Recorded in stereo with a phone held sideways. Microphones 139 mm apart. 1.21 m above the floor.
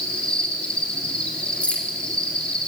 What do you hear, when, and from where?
0.0 s an insect: 10° left (ahead or behind), 3.5 m
1.6 s keys jangling: 10° left (ahead or behind), 2.5 m